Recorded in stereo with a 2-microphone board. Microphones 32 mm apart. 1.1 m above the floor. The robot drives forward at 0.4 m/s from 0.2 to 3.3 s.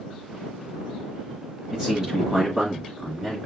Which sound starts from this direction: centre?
A man speaking, at 1.7 s.